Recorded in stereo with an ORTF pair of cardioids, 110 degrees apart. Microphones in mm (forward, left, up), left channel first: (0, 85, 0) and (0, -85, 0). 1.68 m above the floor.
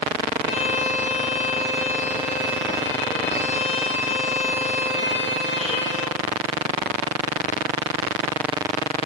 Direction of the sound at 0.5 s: 40° left.